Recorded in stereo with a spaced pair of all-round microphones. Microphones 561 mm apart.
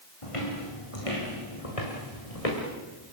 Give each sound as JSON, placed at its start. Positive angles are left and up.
{"t": 0.2, "sound": "footsteps", "side_deg": 60, "distance_m": 5.0}